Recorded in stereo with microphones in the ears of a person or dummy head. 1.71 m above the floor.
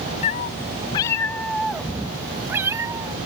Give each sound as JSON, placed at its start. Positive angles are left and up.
{"t": 0.2, "sound": "a cat meowing", "side_deg": 40}